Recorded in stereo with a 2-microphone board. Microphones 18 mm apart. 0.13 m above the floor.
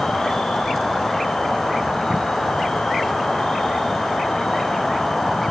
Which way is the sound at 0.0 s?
65° left (ahead or behind).